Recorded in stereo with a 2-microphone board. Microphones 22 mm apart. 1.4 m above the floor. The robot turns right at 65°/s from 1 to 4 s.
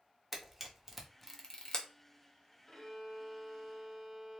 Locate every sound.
0.3 s a camera shutter: 10° right (ahead or behind), 0.6 m; by 1.9 s 45° left (ahead or behind), 0.6 m
2.7 s a violin: 130° left, 1.2 m; by 4.4 s 140° right, 1.2 m